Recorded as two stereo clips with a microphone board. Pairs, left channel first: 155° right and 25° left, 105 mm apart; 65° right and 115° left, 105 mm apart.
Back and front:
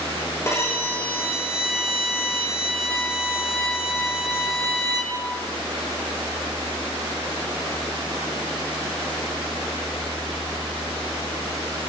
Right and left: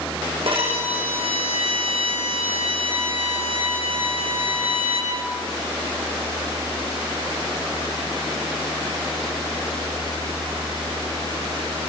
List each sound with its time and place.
0.5 s a violin: 140° left, 6 m